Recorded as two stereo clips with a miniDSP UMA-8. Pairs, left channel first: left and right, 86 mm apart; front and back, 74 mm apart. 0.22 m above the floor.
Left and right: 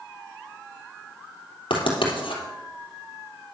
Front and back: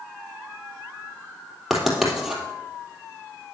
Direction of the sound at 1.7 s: 95° left.